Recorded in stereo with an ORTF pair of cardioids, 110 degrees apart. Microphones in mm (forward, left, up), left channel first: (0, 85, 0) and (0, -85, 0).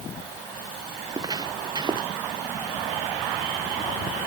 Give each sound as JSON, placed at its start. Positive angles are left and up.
{"t": 1.0, "sound": "footsteps", "azimuth_deg": -25}